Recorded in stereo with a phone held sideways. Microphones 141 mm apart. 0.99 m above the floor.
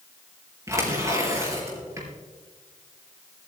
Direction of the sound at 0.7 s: 25° right (ahead or behind).